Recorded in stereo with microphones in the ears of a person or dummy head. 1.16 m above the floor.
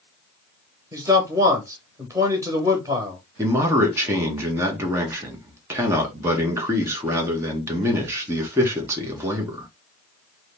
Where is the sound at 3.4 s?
10° right (ahead or behind), 0.9 m.